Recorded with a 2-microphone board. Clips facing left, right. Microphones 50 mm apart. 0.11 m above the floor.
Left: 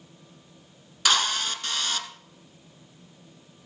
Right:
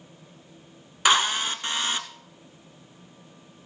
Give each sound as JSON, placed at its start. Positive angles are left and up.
{"t": 1.1, "sound": "a drill", "side_deg": -20, "distance_m": 1.2}